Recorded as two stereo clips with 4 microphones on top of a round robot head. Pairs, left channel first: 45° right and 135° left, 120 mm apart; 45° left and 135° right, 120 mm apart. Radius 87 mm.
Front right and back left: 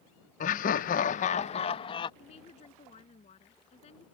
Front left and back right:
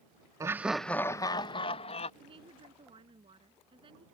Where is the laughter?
70° right; by 2.1 s 5° left.